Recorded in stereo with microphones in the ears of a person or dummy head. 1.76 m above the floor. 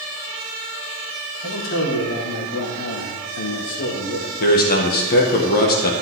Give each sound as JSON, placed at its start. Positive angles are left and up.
{"t": 1.4, "sound": "a man speaking", "side_deg": 80, "distance_m": 3.5}
{"t": 4.4, "sound": "a man speaking", "side_deg": 55, "distance_m": 1.8}